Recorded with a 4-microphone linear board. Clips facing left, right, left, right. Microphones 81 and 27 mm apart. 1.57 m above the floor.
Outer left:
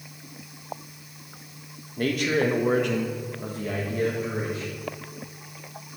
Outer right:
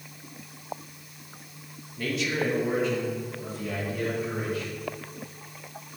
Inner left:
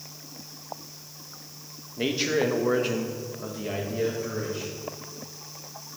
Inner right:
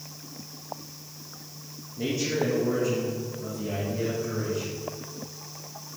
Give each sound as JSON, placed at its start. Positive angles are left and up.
{"t": 2.0, "sound": "a man speaking", "side_deg": 50, "distance_m": 1.6}